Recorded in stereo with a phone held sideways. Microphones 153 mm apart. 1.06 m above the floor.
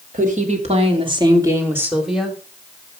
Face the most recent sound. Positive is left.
turn(degrees=0)  # may be behind; listen again after turning